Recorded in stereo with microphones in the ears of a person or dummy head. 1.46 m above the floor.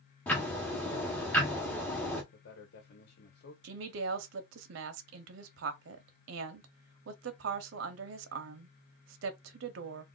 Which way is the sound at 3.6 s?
75° right (ahead or behind).